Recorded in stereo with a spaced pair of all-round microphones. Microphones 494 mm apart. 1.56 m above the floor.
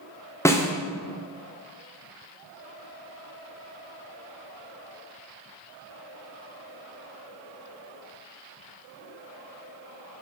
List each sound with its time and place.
0.5 s a snare drum: 5° left (ahead or behind), 0.8 m